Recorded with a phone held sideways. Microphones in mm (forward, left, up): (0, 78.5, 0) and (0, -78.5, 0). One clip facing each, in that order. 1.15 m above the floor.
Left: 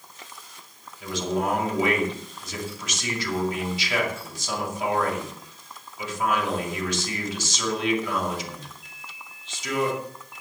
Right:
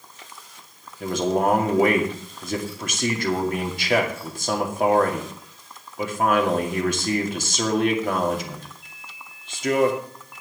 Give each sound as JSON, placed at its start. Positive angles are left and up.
{"t": 1.0, "sound": "a man speaking", "side_deg": -55, "distance_m": 2.5}